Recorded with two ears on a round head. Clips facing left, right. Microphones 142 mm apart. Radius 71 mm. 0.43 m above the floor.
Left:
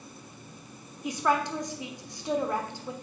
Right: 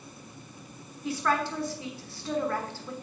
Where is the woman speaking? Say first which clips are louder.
Left 1 dB; 15° left (ahead or behind), 1.0 m.